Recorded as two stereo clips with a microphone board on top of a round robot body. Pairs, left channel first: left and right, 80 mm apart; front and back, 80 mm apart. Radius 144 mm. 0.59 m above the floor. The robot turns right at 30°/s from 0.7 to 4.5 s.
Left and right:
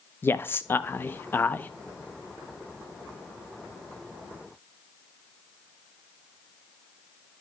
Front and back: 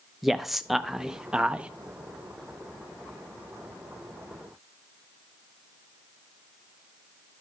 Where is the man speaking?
95° left, 0.6 m; by 1.7 s 125° left, 0.6 m.